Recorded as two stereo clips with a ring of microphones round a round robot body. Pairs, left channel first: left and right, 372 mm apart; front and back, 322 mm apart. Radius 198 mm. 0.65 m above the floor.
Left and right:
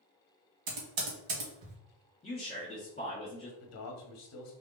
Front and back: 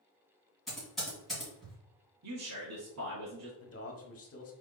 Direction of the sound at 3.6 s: 45° left.